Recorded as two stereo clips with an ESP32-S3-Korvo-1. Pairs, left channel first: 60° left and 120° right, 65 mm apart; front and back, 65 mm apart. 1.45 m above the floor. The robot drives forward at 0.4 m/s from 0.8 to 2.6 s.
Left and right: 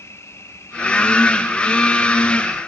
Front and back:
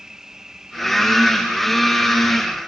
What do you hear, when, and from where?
0.0 s an insect: 100° left; by 2.7 s 115° left